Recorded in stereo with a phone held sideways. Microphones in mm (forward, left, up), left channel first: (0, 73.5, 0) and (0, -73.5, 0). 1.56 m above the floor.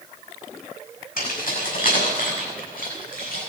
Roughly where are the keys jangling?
Left.